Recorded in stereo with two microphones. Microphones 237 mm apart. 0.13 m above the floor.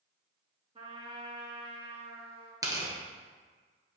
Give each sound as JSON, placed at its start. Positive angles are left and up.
{"t": 0.8, "sound": "a trumpet", "side_deg": -25, "distance_m": 1.7}
{"t": 2.6, "sound": "tearing paper", "side_deg": -15, "distance_m": 1.6}